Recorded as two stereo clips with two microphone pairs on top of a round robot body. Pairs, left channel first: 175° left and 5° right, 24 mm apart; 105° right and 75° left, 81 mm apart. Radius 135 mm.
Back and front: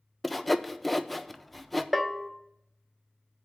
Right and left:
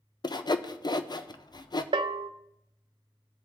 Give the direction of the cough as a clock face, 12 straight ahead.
I don't hear a cough.